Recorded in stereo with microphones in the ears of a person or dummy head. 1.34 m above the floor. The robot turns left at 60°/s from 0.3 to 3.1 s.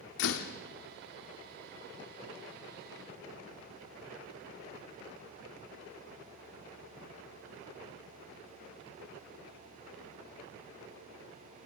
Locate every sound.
0.2 s a door slam: 75° left (ahead or behind), 2.0 m